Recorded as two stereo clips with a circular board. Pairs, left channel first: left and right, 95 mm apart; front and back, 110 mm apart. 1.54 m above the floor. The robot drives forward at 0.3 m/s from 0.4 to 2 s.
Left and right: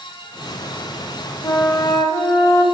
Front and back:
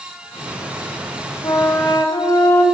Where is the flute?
45° left, 0.9 m; by 2.6 s 55° left, 0.9 m.